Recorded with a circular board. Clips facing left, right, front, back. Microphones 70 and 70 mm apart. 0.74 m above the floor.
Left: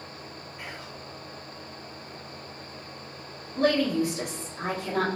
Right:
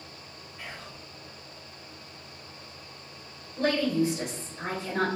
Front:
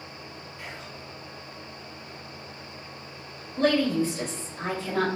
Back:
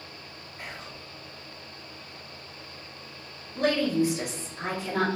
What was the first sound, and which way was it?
Whispering, 160° left.